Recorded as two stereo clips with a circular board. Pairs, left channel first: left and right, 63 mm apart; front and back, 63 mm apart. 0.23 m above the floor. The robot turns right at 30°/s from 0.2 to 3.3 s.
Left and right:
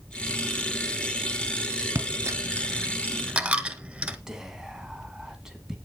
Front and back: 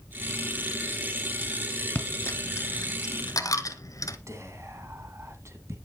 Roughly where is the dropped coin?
Ahead right.